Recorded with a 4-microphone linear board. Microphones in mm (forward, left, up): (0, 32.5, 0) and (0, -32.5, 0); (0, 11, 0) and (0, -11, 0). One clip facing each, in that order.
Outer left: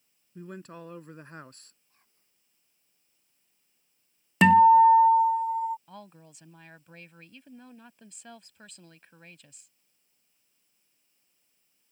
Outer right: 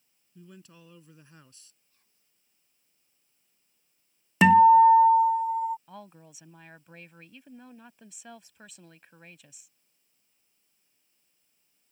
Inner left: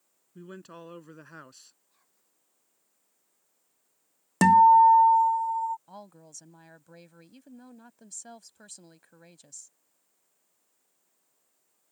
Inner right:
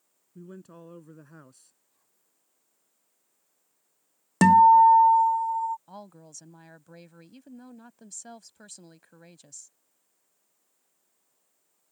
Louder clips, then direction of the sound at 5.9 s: Outer right 1 dB, inner right 2 dB; 5° right (ahead or behind).